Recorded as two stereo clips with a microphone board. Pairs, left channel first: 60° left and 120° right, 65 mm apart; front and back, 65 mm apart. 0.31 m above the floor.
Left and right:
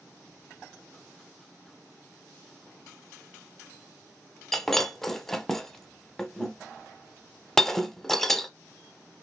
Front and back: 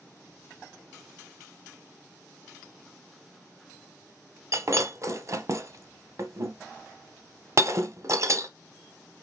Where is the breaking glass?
145° left, 0.7 m.